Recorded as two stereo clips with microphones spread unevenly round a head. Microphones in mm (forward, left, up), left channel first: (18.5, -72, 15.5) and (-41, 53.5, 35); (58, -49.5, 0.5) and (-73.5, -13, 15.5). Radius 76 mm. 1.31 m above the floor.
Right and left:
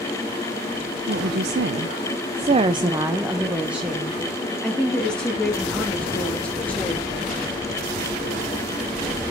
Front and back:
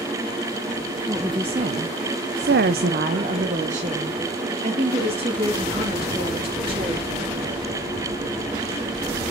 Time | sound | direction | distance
1.1 | a woman speaking | 90° left | 0.7 m